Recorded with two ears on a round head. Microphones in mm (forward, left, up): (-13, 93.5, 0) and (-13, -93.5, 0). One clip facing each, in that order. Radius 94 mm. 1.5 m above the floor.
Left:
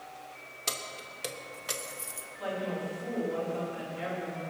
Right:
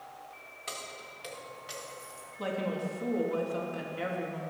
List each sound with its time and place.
0.7 s keys jangling: 55° left (ahead or behind), 1.6 m; by 2.3 s 70° left (ahead or behind), 1.1 m
2.4 s a woman speaking: 60° right (ahead or behind), 3 m